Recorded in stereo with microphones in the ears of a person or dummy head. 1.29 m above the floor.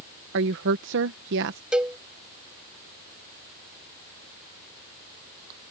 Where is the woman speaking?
70° right (ahead or behind).